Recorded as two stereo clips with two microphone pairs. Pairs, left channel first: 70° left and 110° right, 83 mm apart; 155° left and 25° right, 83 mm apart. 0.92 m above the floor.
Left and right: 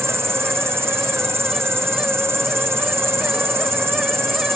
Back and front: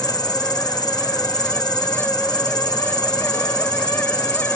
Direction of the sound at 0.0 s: 165° right.